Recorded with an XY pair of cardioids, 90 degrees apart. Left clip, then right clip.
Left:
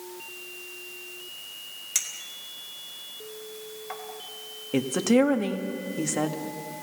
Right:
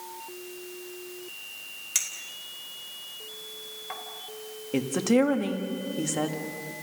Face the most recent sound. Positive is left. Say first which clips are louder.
# left 2 dB
turn(degrees=10)